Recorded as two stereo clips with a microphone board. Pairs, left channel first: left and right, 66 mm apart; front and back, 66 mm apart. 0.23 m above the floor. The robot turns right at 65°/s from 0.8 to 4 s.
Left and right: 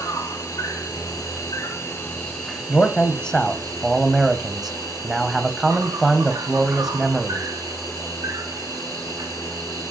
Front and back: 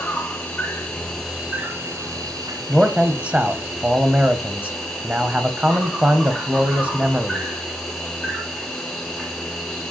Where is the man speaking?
110° left, 1.0 m; by 7.5 s 165° right, 1.0 m.